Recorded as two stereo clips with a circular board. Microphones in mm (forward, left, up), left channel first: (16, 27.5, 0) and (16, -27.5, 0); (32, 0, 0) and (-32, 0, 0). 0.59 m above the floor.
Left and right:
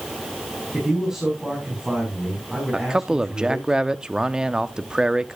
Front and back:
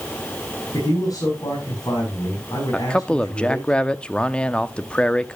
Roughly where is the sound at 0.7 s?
Ahead.